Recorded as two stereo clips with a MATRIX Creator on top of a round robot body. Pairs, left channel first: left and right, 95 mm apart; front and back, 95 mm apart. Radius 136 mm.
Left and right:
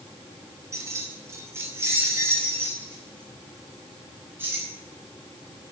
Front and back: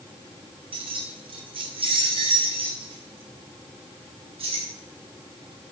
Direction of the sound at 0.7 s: 150° right.